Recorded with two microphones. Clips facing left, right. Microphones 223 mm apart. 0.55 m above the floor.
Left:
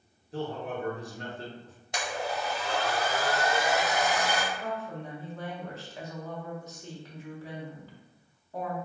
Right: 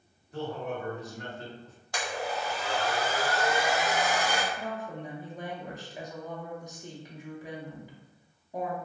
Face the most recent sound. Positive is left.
turn(degrees=-15)  # may be behind; listen again after turning